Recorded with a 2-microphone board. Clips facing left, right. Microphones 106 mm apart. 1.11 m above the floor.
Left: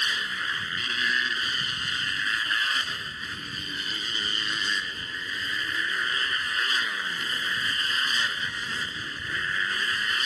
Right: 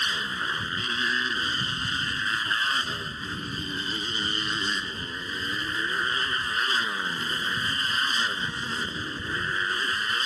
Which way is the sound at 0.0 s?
30° right (ahead or behind).